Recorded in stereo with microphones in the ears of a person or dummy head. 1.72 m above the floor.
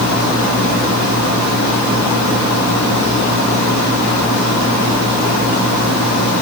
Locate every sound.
Only background noise.